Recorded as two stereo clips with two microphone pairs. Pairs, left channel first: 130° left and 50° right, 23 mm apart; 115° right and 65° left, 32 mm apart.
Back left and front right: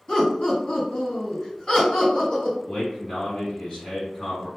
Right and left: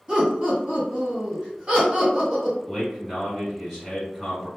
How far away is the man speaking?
About 2.0 m.